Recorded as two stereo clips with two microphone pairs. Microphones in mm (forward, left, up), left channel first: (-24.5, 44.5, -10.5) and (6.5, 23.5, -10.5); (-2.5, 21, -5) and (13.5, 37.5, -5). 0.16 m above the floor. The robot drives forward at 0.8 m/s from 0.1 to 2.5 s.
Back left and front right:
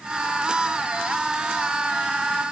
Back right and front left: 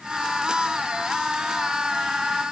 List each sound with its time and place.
Only background noise.